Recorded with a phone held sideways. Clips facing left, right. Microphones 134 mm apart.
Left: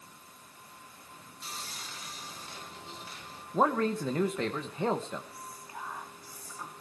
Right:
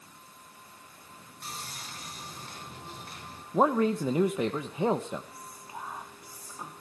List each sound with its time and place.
1.4 s sawing: 50° right (ahead or behind), 4.5 m
3.5 s a man speaking: 15° right (ahead or behind), 1.0 m
5.3 s whispering: 20° right (ahead or behind), 2.5 m